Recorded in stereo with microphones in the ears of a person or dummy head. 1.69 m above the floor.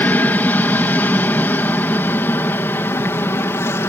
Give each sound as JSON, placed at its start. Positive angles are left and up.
{"t": 0.0, "sound": "an aircraft", "side_deg": 10}